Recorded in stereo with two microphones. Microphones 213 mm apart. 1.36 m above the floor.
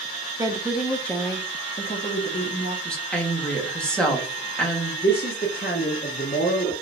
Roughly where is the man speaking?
Left.